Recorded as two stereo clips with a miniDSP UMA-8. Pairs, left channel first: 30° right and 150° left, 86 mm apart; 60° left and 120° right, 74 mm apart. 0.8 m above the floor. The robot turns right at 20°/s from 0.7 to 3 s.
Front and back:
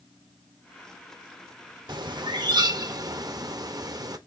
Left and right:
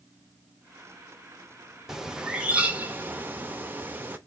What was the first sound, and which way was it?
A bird, 155° left.